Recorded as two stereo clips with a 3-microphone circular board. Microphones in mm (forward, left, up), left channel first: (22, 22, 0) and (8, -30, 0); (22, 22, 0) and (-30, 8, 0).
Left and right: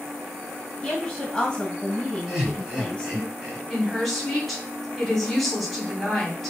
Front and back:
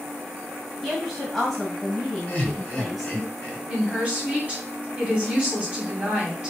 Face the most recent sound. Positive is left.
turn(degrees=155)